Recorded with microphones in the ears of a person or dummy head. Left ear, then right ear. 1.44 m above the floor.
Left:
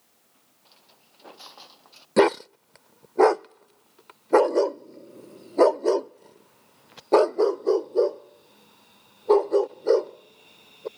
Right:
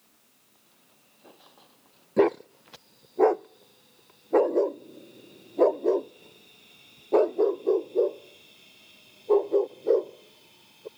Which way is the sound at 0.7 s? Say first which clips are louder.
Left 8 dB; 45° left (ahead or behind).